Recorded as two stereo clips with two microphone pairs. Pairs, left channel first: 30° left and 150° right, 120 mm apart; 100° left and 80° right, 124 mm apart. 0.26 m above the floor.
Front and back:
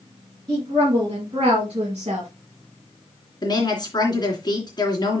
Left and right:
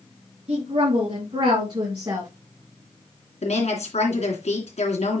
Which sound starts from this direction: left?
A woman speaking, at 3.4 s.